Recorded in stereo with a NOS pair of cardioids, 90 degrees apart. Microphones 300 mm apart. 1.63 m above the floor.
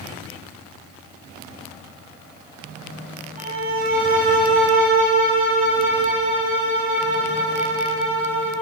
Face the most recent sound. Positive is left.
turn(degrees=-25)